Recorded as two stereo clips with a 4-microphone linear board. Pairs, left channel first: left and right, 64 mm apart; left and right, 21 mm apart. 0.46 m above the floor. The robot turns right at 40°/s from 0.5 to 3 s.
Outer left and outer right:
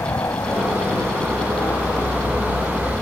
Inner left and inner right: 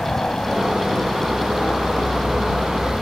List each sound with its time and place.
0.0 s a helicopter: 50° left (ahead or behind); by 3.0 s 20° left (ahead or behind)